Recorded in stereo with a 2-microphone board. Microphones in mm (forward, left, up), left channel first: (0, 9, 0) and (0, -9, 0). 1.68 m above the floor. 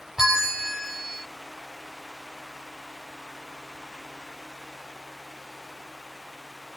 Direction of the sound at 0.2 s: 30° right (ahead or behind).